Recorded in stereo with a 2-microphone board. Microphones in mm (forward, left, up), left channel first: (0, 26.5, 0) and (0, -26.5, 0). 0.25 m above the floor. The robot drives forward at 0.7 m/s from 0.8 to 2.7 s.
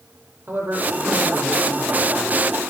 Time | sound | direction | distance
0.5 | a man speaking | 35° right (ahead or behind) | 7 m